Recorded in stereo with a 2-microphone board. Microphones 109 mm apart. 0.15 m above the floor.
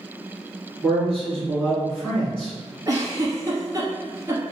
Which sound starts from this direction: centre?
A man speaking, at 0.8 s.